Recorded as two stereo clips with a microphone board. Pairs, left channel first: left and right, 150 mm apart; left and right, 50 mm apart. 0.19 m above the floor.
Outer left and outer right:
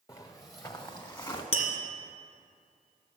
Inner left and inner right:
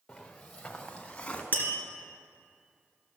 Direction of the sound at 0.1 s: 25° left (ahead or behind).